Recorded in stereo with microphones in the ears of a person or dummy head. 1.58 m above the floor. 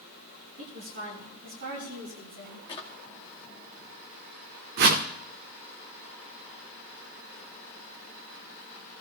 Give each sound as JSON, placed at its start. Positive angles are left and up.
{"t": 0.6, "sound": "a woman speaking", "side_deg": -50, "distance_m": 8.5}
{"t": 2.7, "sound": "a drawer", "side_deg": 20, "distance_m": 0.8}
{"t": 4.8, "sound": "a whoosh", "side_deg": -55, "distance_m": 1.1}